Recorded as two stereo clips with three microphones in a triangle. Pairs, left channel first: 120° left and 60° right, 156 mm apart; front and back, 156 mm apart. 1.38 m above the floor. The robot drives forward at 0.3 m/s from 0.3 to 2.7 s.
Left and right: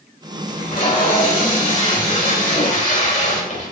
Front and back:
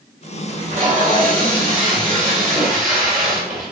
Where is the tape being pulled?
145° left, 2 m; by 3.7 s 155° left, 3 m.